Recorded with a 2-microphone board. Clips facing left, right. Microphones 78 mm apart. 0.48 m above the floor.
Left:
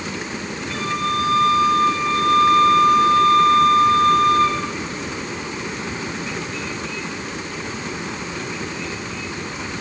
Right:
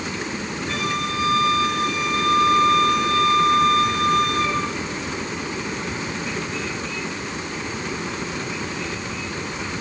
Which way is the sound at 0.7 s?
75° right (ahead or behind).